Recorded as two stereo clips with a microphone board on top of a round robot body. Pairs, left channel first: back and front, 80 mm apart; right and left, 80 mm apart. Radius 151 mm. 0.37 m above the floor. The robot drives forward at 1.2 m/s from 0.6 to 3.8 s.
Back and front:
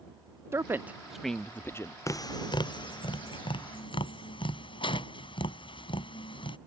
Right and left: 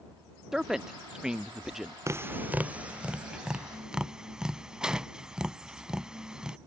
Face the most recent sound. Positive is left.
turn(degrees=170)